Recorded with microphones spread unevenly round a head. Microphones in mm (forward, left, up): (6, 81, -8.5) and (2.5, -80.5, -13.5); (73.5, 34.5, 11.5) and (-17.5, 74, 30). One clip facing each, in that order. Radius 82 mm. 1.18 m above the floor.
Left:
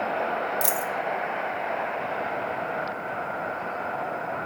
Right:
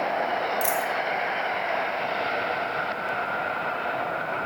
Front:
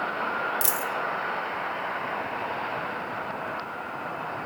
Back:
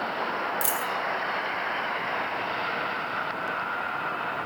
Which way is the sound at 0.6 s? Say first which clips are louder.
Right 2 dB, even; 35° left.